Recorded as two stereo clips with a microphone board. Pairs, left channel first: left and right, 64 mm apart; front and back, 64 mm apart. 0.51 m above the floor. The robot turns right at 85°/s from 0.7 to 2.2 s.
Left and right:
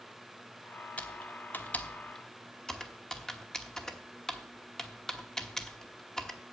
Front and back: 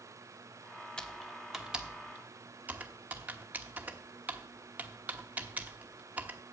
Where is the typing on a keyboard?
55° left, 1.0 m; by 6.4 s 160° left, 1.0 m.